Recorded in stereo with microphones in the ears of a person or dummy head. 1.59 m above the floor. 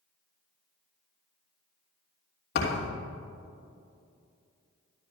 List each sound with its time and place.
2.5 s a thud: 60° left (ahead or behind), 3.5 m